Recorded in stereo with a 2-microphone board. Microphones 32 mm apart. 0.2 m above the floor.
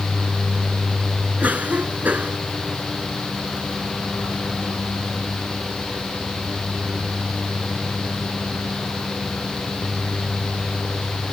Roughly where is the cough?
Right.